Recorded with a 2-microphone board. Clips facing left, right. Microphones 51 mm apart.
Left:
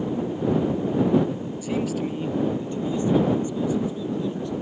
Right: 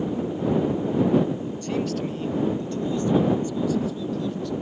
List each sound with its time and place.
1.6 s a man speaking: 5° left (ahead or behind); by 4.5 s 25° left (ahead or behind)